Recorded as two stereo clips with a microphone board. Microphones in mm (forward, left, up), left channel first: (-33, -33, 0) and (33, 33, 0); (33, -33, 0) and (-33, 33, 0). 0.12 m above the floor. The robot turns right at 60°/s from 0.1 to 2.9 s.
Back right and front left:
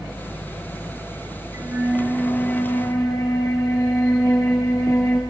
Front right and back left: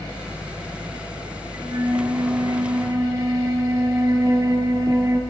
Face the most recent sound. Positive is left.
turn(degrees=175)